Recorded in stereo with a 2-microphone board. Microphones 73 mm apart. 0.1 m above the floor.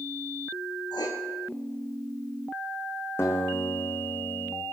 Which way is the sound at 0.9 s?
80° left.